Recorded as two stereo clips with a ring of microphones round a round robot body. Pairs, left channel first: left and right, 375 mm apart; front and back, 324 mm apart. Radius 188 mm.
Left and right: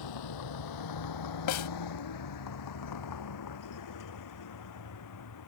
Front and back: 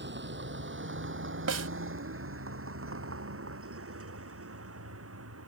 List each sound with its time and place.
0.0 s a vehicle: 125° left; by 5.5 s 135° left
1.5 s a snare drum: 135° left